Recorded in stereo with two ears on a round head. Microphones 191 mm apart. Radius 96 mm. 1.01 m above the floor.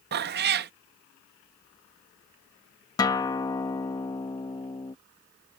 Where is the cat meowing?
50° right (ahead or behind).